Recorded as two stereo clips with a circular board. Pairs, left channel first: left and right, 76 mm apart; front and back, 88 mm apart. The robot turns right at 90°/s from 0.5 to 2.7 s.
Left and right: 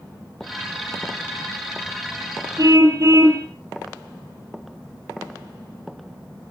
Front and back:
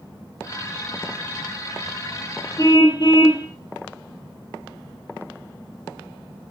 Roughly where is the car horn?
Ahead right.